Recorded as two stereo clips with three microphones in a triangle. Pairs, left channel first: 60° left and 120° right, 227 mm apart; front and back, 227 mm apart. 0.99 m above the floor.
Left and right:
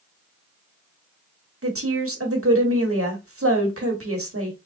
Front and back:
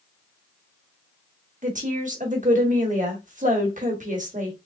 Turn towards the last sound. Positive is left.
turn(degrees=-125)